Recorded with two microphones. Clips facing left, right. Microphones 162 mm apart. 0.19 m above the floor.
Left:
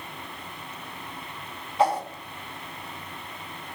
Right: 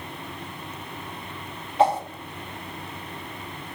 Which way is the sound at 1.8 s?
25° right (ahead or behind).